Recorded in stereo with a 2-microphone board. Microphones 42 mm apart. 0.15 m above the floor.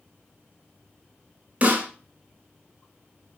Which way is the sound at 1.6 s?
30° right (ahead or behind).